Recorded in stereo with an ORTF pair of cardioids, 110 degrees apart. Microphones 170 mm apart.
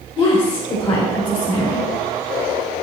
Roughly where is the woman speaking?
Ahead left.